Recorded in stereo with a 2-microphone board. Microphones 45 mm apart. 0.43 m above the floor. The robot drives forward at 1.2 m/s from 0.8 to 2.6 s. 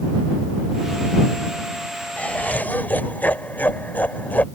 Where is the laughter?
30° left (ahead or behind); by 4.5 s 40° left (ahead or behind).